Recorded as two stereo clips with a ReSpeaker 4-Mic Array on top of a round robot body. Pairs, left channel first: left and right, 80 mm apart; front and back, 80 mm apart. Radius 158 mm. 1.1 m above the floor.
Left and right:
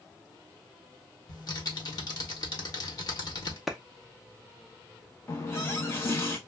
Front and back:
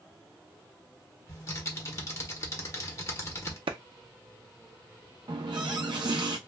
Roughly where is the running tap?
Behind left.